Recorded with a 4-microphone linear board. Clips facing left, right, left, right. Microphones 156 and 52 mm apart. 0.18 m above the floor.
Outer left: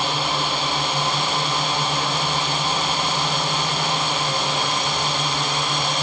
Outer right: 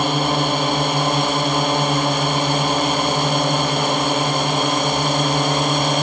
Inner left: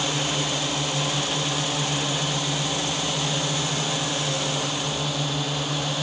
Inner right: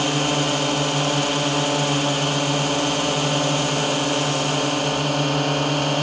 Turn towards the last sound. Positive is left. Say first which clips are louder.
# outer right 6 dB, inner right 5 dB
turn(degrees=-55)  # may be behind; listen again after turning